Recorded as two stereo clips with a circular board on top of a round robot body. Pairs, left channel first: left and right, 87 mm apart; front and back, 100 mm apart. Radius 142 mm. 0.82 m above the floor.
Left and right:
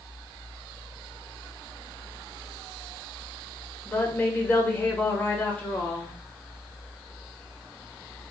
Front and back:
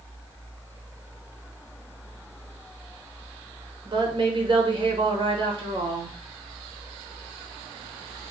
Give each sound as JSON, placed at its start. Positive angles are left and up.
{"t": 3.9, "sound": "a woman speaking", "azimuth_deg": 155, "distance_m": 1.1}